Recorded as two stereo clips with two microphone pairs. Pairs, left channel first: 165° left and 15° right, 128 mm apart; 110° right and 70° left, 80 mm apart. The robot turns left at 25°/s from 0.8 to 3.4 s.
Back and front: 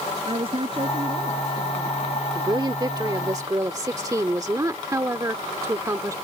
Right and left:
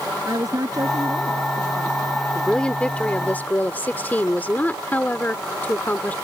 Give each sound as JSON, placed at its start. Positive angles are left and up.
{"t": 0.2, "sound": "a woman speaking", "azimuth_deg": 30}
{"t": 2.4, "sound": "a woman speaking", "azimuth_deg": -35}